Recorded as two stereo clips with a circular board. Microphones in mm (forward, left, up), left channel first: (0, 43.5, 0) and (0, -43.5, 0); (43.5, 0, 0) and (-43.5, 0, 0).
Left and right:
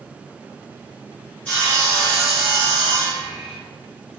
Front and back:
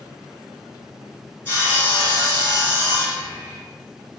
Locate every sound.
1.4 s sawing: 40° left, 1.8 m